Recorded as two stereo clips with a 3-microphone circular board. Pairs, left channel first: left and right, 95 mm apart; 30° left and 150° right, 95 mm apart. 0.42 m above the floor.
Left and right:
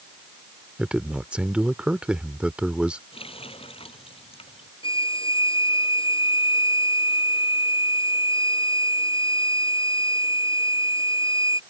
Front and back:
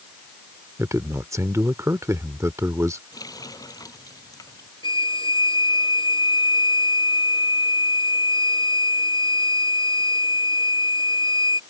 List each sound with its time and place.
0.8 s a man speaking: 160° right
3.1 s a running tap: 80° left
4.8 s a violin: 65° left